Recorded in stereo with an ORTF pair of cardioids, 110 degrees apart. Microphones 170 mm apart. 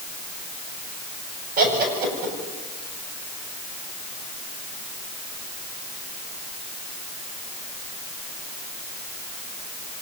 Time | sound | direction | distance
1.6 | laughter | 65° right | 8.5 m